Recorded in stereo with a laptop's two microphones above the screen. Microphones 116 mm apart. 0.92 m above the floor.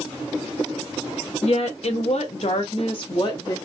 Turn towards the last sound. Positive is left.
turn(degrees=35)  # may be behind; listen again after turning